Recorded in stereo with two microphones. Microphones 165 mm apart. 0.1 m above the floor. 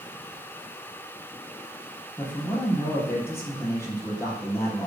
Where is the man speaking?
15° left (ahead or behind), 3 m.